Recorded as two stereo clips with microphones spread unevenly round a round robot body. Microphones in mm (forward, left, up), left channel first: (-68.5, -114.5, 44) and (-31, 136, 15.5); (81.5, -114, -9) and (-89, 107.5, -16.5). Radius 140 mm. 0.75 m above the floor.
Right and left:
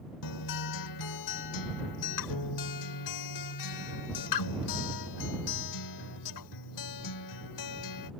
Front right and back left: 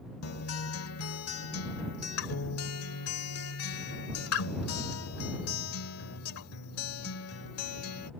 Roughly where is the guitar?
Right.